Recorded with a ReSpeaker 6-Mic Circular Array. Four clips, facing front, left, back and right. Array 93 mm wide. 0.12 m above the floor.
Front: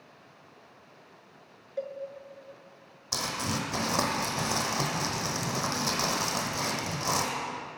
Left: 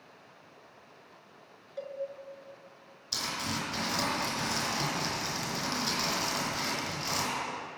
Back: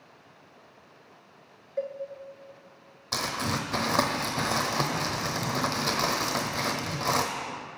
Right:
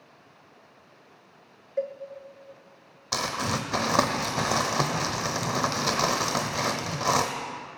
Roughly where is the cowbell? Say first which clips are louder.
Right 10 dB, back 3 dB; right.